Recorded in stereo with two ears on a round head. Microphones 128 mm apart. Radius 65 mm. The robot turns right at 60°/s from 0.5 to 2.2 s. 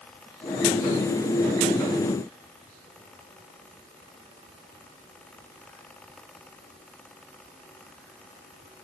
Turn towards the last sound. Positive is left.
No sound to turn to.